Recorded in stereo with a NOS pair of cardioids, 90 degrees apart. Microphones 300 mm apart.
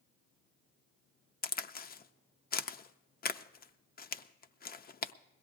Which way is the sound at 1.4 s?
30° left.